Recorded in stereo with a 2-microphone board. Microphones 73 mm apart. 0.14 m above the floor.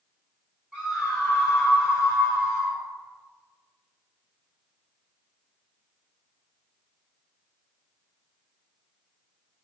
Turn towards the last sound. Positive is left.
turn(degrees=25)  # may be behind; listen again after turning